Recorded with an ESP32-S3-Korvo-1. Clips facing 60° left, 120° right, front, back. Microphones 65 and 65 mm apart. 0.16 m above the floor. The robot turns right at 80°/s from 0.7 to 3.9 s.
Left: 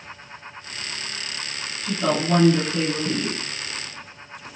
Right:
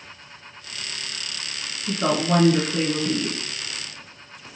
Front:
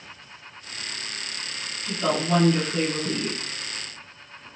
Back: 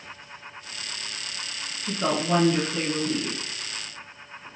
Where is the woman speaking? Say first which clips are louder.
Even, front 1 dB; 160° right, 1.7 m; by 3.4 s 35° right, 1.7 m.